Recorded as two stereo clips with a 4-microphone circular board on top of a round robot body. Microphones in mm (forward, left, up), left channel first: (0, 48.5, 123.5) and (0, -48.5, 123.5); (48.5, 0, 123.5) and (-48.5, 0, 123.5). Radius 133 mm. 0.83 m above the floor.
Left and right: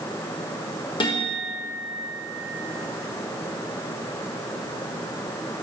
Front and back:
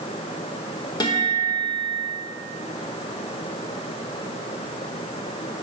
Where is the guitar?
50° left, 1.2 m.